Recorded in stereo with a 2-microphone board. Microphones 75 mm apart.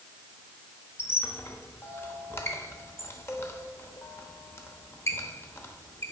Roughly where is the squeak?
Left.